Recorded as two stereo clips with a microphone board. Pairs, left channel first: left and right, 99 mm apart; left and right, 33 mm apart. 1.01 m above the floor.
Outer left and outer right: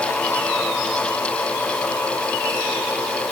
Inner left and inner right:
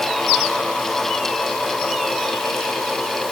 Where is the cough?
No cough in this recording.